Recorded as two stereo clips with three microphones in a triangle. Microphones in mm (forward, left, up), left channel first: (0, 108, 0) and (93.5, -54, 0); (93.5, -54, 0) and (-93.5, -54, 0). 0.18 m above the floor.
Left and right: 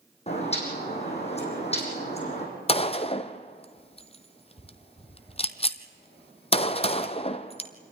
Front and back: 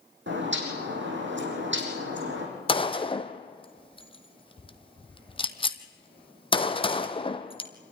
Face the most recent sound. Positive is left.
turn(degrees=60)